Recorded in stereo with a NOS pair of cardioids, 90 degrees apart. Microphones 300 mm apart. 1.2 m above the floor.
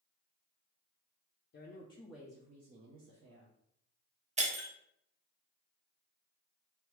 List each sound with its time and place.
1.5 s a woman speaking: 40° left, 0.7 m; by 3.5 s 60° right, 1.1 m
4.4 s breaking glass: 25° right, 0.8 m